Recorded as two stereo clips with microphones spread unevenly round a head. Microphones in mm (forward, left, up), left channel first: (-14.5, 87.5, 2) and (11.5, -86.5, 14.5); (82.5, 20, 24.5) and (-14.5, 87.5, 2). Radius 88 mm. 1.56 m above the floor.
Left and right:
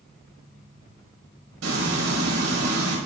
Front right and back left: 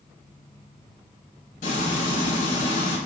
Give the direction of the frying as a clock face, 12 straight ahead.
3 o'clock.